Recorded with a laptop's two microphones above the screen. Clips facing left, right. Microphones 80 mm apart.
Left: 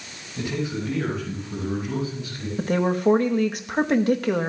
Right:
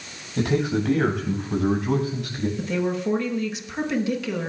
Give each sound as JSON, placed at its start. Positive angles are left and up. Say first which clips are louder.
{"t": 0.4, "sound": "a man speaking", "louder": "right 5 dB", "side_deg": -80, "distance_m": 5.5}
{"t": 2.6, "sound": "a woman speaking", "louder": "left 6 dB", "side_deg": 50, "distance_m": 1.1}